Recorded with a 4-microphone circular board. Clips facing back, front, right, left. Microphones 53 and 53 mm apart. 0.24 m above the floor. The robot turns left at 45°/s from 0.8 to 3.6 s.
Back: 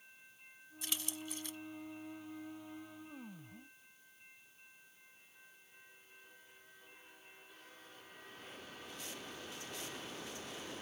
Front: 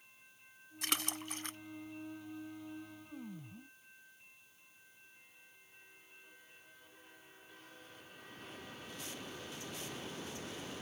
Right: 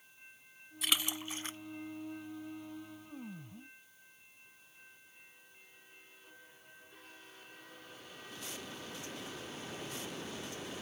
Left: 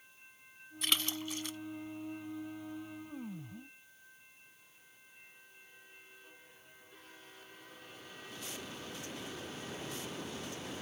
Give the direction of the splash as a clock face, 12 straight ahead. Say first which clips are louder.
Front 5 dB, even; 12 o'clock.